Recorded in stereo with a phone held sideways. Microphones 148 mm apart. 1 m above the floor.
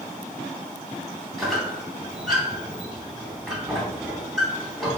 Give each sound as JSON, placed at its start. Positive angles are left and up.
{"t": 1.4, "sound": "a squeak", "side_deg": 0, "distance_m": 3.0}